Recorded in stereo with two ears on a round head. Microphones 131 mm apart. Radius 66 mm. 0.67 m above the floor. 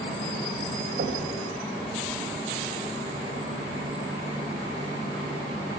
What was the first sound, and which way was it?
Knocking, 65° right (ahead or behind).